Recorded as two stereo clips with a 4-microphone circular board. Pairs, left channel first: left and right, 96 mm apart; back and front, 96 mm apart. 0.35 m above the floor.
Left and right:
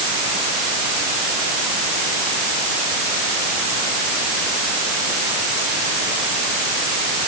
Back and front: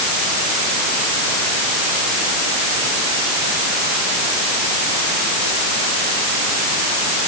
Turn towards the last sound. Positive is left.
No sound to turn to.